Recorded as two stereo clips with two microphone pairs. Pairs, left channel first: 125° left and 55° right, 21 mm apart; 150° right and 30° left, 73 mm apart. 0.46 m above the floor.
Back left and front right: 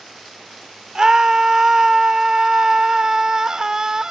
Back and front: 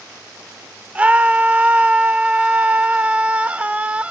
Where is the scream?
30° right, 1.5 m.